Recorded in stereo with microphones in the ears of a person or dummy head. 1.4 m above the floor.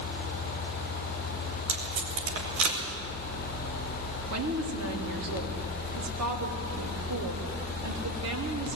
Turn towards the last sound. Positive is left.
turn(degrees=-80)